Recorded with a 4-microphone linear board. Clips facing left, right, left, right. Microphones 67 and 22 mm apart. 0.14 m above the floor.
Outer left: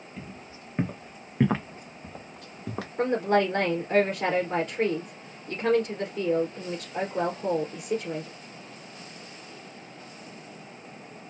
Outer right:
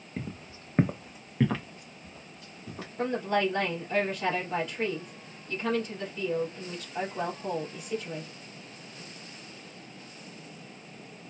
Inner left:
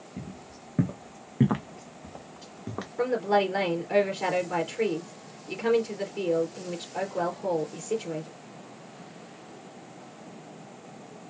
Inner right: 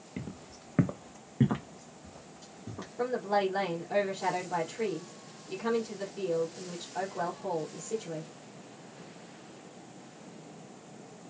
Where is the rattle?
I don't hear a rattle.